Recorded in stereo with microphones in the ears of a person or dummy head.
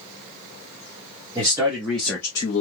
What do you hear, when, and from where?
1.4 s a man speaking: 25° right (ahead or behind), 1.6 m; by 2.6 s 30° left (ahead or behind), 1.3 m